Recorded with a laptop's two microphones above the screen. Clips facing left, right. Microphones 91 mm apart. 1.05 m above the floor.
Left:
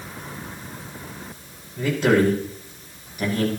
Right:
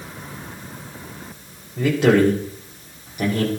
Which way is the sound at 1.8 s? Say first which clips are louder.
Right 3 dB; 70° right (ahead or behind).